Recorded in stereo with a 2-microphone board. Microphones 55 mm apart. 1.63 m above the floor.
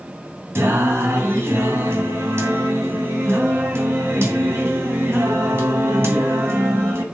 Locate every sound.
0.6 s singing: 50° right (ahead or behind), 2 m